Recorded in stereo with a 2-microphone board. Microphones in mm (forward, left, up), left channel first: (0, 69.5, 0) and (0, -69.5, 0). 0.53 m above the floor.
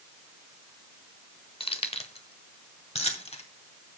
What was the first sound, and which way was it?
Keys jangling, 40° left (ahead or behind).